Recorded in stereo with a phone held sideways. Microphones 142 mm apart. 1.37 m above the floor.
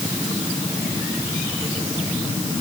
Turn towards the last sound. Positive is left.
No sound to turn to.